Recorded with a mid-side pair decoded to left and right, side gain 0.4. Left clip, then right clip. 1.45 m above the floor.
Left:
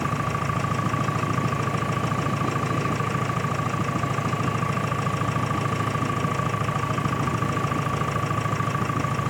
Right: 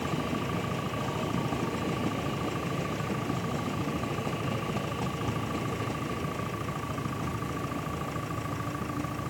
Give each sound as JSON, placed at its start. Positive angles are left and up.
{"t": 0.0, "sound": "an engine running", "azimuth_deg": 65}